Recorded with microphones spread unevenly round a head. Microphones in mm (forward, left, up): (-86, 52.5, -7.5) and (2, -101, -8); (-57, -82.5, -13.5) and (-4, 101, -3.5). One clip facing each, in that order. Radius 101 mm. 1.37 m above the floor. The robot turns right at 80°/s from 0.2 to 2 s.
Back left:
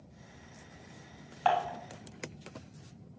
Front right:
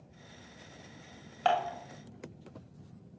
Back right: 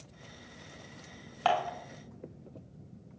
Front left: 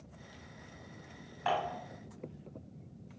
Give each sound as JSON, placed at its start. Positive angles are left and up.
{"t": 1.4, "sound": "dishes clattering", "azimuth_deg": -105, "distance_m": 2.0}